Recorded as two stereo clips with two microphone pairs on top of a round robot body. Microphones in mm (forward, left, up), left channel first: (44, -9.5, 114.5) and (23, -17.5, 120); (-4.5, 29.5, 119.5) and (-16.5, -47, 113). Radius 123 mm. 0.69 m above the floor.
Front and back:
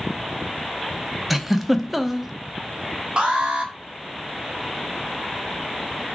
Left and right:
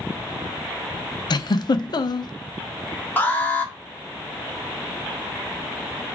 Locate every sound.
1.3 s a giggle: 110° left, 0.7 m
3.2 s an alarm: 145° left, 2 m